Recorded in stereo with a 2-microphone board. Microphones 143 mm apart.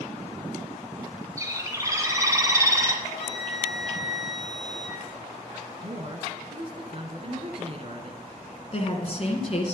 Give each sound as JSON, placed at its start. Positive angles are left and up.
{"t": 1.4, "sound": "a bird", "side_deg": -20, "distance_m": 1.6}
{"t": 3.0, "sound": "a flute", "side_deg": 45, "distance_m": 1.2}
{"t": 5.8, "sound": "a woman speaking", "side_deg": -45, "distance_m": 1.5}
{"t": 8.7, "sound": "a woman speaking", "side_deg": 45, "distance_m": 2.0}